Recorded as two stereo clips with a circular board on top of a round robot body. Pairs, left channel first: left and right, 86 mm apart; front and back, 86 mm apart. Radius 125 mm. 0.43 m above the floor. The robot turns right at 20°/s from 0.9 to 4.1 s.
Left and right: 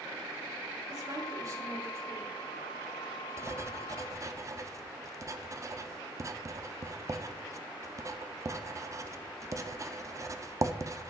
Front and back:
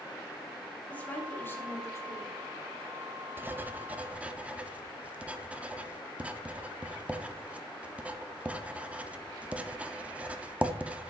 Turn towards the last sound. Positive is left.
turn(degrees=-115)